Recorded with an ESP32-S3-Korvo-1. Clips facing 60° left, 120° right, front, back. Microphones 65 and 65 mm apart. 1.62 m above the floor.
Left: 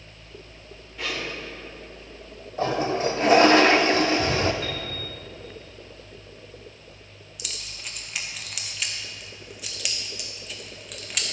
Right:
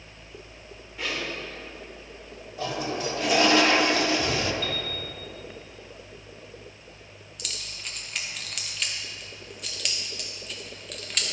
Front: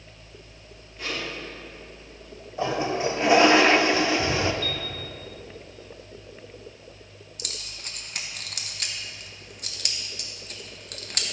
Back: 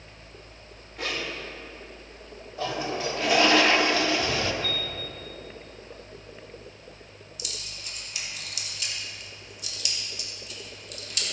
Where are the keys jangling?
25° right, 1.1 m.